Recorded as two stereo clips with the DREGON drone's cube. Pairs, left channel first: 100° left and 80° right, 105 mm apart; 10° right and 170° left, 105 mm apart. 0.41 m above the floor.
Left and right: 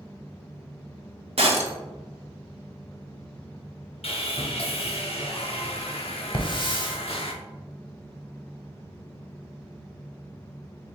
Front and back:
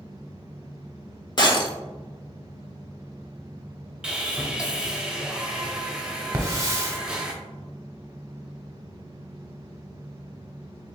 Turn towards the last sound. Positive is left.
turn(degrees=115)